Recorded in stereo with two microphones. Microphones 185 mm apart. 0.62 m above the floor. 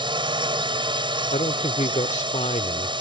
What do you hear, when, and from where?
0.0 s a drone: 25° right (ahead or behind)
1.3 s a man speaking: 40° left (ahead or behind)